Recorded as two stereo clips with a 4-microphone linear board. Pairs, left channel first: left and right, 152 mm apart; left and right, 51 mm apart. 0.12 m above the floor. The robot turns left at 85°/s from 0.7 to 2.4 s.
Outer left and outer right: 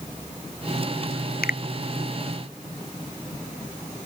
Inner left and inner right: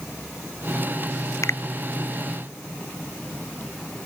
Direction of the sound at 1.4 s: 85° left.